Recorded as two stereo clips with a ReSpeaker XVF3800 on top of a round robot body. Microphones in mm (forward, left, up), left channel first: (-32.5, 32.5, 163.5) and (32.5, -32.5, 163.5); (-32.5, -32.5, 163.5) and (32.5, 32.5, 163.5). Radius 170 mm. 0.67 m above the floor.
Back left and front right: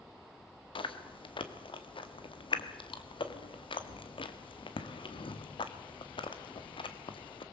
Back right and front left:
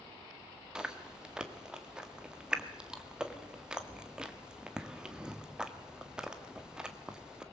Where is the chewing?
125° left, 1.9 m.